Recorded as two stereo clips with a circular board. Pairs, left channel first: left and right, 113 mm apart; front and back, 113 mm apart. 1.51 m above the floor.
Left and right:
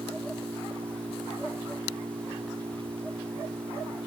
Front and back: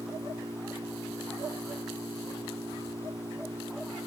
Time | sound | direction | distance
0.0 | an engine running | 130° right | ?